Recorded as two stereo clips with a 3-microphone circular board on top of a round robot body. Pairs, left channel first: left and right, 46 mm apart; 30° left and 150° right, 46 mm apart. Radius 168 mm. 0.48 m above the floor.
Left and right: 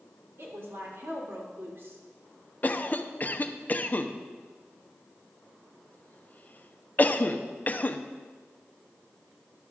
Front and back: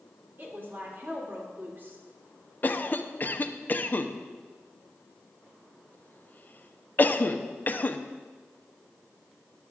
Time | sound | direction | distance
0.4 | a woman speaking | 115° right | 3 m
2.6 | a cough | 55° left | 0.9 m